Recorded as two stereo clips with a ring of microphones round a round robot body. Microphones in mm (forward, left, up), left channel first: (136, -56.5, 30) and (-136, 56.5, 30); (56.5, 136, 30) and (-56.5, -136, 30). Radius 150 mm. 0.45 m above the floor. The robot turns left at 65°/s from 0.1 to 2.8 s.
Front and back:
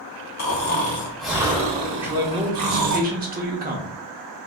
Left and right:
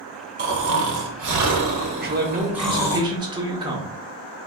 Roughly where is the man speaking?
Behind right.